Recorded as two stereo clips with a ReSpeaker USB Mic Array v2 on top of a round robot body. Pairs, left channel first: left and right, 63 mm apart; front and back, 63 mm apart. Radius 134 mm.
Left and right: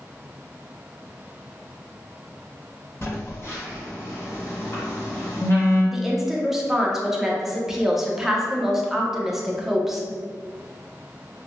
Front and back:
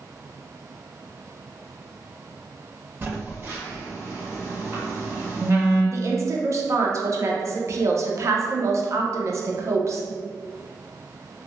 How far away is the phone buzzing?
About 1.5 m.